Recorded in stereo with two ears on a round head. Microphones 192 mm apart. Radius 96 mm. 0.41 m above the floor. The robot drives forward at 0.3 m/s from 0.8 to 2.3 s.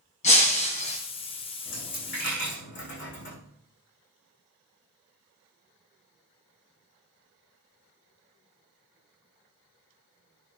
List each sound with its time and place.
0.2 s breaking glass: 35° left (ahead or behind), 2 m
1.6 s a dropped coin: 60° left (ahead or behind), 6 m